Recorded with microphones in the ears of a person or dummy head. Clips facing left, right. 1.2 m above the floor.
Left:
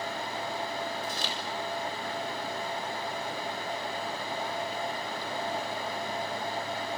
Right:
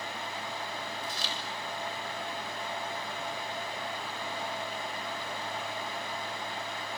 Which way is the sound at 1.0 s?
50° left (ahead or behind).